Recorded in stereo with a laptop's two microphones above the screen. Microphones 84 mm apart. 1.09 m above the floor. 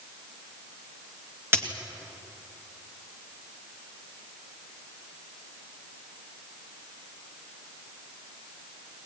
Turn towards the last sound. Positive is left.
turn(degrees=-35)  # may be behind; listen again after turning